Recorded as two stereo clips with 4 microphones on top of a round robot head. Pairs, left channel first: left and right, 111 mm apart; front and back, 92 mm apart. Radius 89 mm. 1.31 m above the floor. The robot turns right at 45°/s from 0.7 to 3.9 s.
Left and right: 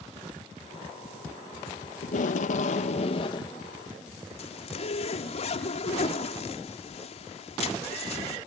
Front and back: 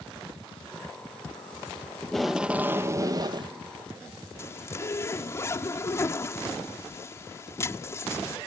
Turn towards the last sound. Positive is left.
turn(degrees=60)